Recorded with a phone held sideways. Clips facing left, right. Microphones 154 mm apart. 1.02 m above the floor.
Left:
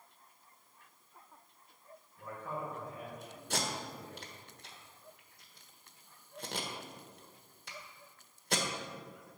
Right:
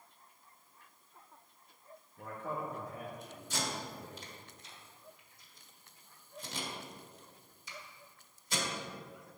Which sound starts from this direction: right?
A man speaking, at 2.2 s.